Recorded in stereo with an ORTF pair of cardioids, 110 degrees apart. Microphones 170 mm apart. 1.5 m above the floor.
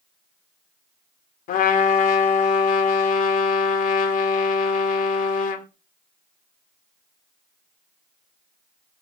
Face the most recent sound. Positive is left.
turn(degrees=55)